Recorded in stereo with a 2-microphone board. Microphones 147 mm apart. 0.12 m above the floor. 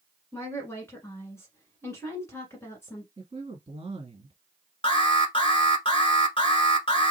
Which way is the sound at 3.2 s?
35° right (ahead or behind).